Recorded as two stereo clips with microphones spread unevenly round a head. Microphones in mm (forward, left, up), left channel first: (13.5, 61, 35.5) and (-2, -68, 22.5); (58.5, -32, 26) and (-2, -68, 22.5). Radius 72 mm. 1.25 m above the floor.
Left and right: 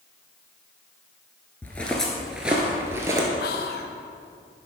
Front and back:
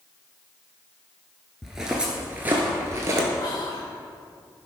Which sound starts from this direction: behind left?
Footsteps, at 1.6 s.